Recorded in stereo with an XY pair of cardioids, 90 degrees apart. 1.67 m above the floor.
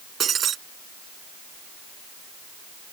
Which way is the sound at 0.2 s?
60° right.